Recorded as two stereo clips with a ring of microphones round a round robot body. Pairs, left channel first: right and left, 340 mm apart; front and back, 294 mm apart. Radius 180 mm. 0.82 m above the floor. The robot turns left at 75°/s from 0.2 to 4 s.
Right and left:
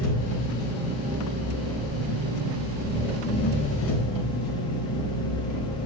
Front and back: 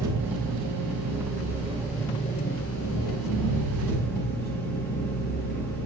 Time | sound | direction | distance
0.0 | an engine running | 140° right | 4 m